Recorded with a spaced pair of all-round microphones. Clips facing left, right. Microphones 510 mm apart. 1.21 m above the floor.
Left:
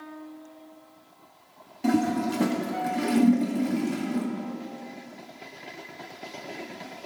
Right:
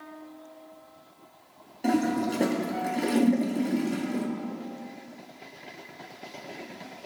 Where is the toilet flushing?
25° left (ahead or behind), 1.2 m.